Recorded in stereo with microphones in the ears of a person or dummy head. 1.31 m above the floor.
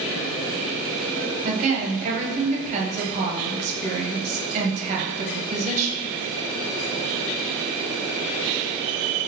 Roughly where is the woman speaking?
Right.